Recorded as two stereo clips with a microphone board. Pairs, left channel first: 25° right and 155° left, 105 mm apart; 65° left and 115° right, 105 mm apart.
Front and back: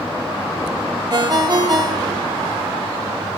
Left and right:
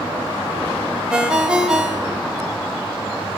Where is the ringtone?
170° left, 0.9 m.